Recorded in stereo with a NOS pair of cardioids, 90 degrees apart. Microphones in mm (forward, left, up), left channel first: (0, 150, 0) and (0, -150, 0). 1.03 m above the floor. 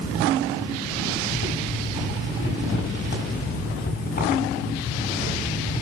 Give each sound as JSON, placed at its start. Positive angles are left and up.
{"t": 1.2, "sound": "boiling", "azimuth_deg": 35, "distance_m": 8.0}